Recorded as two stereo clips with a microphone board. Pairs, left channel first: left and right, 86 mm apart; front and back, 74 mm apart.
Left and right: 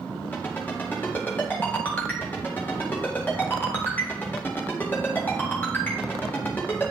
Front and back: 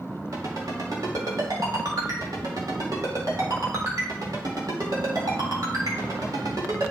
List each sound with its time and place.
0.3 s a ringtone: 155° left, 1.9 m